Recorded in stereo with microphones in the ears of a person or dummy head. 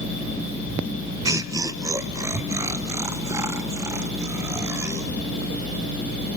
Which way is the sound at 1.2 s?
20° right (ahead or behind).